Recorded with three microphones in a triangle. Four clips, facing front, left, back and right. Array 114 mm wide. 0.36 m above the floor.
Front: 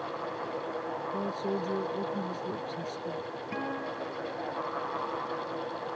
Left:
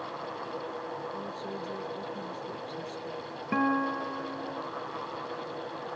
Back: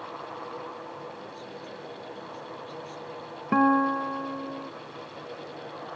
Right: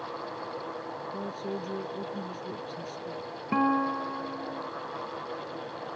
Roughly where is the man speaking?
Ahead right.